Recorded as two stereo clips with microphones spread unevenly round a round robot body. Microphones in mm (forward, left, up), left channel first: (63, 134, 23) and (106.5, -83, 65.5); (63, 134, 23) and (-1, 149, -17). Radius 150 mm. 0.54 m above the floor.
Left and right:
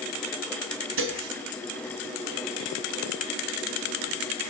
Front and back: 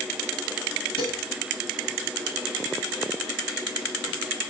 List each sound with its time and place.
1.0 s dishes clattering: 45° right, 3.5 m